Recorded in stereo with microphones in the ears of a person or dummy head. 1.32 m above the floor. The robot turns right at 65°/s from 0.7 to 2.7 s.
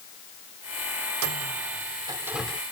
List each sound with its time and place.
1.2 s a microwave: 80° right; by 2.6 s 10° left (ahead or behind)